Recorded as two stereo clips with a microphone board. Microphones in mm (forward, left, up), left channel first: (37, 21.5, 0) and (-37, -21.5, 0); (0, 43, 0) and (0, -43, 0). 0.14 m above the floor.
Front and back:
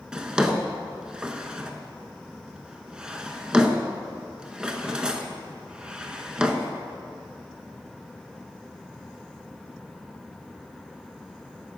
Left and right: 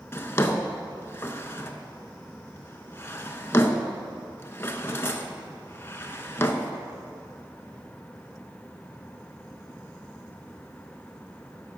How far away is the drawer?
About 0.5 m.